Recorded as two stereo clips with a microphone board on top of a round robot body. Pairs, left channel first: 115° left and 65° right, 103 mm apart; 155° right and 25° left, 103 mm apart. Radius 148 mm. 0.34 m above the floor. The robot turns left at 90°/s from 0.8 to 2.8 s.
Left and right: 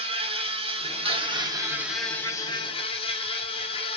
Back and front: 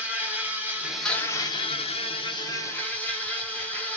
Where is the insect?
50° right, 0.9 m; by 4.0 s 130° left, 0.9 m.